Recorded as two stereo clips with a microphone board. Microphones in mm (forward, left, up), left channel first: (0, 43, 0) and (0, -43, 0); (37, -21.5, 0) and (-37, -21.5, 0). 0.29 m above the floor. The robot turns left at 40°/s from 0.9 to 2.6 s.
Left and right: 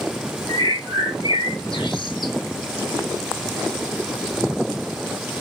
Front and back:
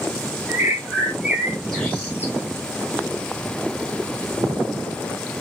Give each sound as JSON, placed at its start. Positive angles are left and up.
{"t": 0.5, "sound": "a bird", "azimuth_deg": 115, "distance_m": 1.0}